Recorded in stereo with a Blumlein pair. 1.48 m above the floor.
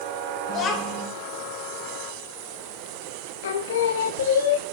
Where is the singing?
60° left, 0.5 m.